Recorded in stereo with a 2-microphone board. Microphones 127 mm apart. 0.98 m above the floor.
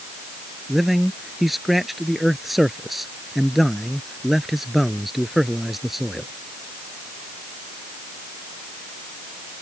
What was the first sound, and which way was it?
A man speaking, centre (ahead or behind).